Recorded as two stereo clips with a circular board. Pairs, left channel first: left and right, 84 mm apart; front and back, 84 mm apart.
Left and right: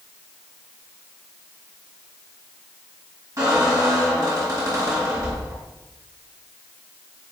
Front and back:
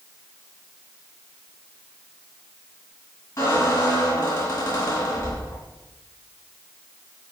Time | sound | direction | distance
3.4 | a squeak | 45° right | 1.5 m